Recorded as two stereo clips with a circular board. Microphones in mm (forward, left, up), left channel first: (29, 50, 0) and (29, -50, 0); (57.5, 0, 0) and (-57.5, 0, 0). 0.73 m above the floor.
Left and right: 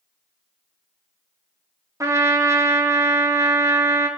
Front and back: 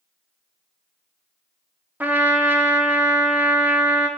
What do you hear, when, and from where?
2.0 s a trumpet: 115° right, 0.8 m